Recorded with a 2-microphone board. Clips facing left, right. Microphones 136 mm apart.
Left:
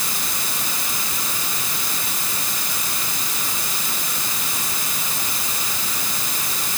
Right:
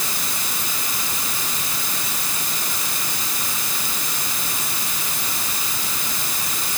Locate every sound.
Only background noise.